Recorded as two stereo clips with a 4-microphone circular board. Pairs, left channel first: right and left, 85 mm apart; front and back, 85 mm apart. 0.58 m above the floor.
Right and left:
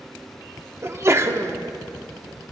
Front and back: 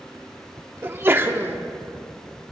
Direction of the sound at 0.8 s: 130° left.